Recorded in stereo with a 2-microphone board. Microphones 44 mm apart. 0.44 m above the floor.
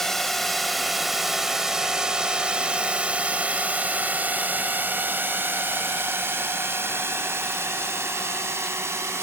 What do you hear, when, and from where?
0.0 s a drone: 10° left (ahead or behind); by 9.2 s 65° right (ahead or behind)